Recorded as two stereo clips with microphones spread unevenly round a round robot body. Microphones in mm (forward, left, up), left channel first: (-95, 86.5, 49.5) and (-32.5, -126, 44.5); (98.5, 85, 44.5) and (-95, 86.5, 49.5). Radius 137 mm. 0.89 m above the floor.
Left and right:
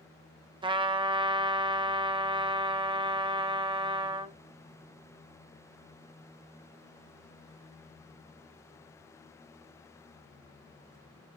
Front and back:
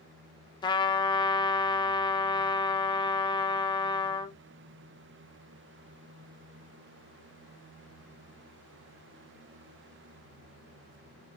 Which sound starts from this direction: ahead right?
A trumpet, at 0.6 s.